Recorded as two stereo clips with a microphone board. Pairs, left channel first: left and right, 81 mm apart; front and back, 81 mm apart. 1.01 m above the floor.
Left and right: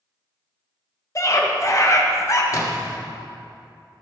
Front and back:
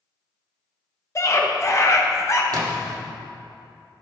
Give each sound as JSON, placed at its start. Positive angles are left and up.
{"t": 1.1, "sound": "a scream", "azimuth_deg": 45, "distance_m": 1.3}
{"t": 2.5, "sound": "a splash", "azimuth_deg": 140, "distance_m": 1.4}